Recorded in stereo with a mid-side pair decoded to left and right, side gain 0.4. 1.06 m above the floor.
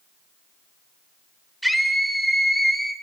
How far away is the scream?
About 4 m.